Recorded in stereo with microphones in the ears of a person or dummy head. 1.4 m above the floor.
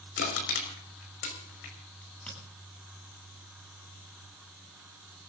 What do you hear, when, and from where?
0.2 s crushing: 60° left (ahead or behind), 5.5 m
2.0 s a crack: 5° left (ahead or behind), 9 m